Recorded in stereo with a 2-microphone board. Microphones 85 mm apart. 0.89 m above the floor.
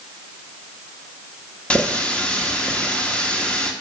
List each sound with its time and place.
1.7 s a running tap: 15° left (ahead or behind), 1.1 m